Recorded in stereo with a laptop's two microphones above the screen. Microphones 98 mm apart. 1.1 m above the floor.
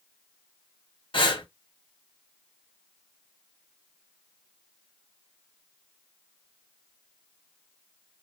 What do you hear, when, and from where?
1.1 s breathing: 55° left (ahead or behind), 1.0 m